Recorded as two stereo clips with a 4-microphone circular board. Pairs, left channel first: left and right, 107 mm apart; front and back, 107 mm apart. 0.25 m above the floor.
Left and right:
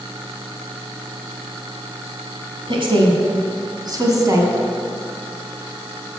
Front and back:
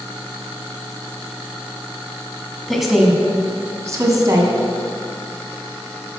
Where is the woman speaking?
90° right, 2 m; by 4.5 s 145° right, 2 m.